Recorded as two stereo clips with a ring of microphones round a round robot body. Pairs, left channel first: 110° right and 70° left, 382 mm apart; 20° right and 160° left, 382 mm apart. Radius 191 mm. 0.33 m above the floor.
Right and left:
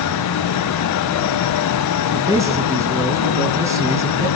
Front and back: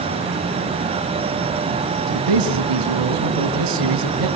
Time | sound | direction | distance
2.1 | a man speaking | 150° left | 3.5 m